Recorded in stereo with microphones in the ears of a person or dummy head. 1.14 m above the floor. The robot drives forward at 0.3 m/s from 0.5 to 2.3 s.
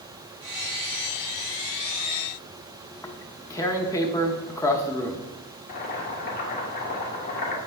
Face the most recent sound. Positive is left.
turn(degrees=45)  # may be behind; listen again after turning